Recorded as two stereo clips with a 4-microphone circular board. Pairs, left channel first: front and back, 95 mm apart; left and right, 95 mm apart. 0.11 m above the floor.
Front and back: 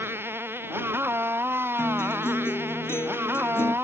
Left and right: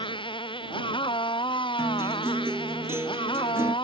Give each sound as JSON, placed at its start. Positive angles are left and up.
{"t": 0.0, "sound": "a motorcycle", "azimuth_deg": 115}
{"t": 1.8, "sound": "a guitar", "azimuth_deg": -45}